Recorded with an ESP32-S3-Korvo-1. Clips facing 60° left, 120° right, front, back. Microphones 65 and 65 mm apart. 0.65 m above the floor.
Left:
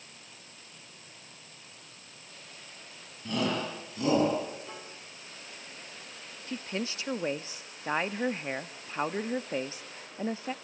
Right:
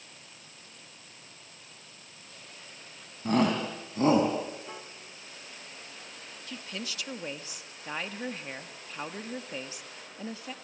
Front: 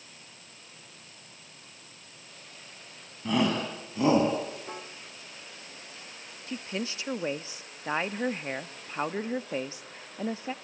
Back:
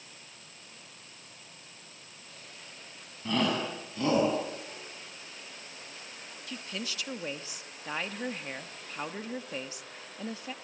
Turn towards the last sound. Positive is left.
turn(degrees=35)